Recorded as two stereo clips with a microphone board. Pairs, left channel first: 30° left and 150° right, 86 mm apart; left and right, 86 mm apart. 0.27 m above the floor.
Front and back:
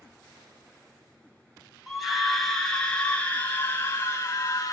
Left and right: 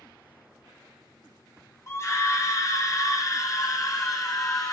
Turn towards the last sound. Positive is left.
turn(degrees=70)